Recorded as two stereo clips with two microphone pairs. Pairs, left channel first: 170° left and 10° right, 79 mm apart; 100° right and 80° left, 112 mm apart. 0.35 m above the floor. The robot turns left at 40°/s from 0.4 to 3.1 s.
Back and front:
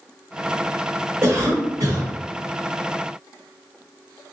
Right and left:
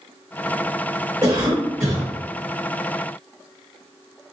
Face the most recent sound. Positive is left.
turn(degrees=-50)